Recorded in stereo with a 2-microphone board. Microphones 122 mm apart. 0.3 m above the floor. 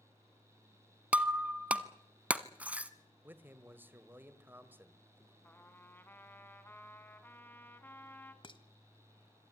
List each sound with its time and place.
1.1 s breaking glass: 10° right (ahead or behind), 0.9 m
3.2 s a man speaking: 15° right (ahead or behind), 1.4 m
5.4 s a trumpet: 15° left (ahead or behind), 1.8 m
8.4 s dishes clattering: 45° left (ahead or behind), 1.1 m